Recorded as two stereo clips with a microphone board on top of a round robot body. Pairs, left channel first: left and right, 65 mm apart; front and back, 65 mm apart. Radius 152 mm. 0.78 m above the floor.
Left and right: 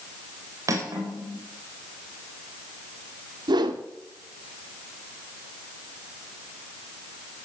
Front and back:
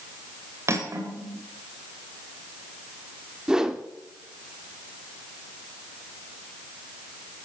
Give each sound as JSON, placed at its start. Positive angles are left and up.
{"t": 0.7, "sound": "cutlery clinking", "azimuth_deg": -130, "distance_m": 3.0}
{"t": 3.5, "sound": "a whoosh", "azimuth_deg": -100, "distance_m": 0.8}